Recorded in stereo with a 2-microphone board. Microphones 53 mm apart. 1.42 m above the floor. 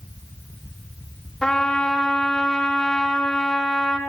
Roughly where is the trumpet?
Centre.